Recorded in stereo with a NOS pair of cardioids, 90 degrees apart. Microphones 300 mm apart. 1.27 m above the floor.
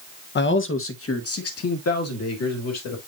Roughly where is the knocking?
I don't hear knocking.